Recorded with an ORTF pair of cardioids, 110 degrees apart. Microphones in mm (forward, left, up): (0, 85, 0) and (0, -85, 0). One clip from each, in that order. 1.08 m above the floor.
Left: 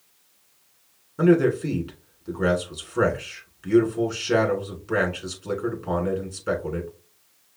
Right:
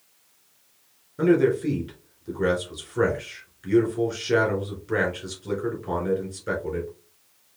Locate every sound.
1.2 s a man speaking: 25° left, 3 m